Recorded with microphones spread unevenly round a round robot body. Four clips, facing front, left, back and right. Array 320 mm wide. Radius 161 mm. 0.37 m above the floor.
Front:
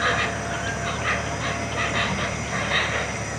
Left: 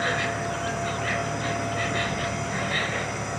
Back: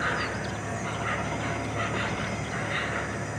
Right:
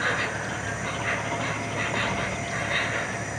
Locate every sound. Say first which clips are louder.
0.0 s an insect: left 1 dB, front 5 dB; 5° left, 1.0 m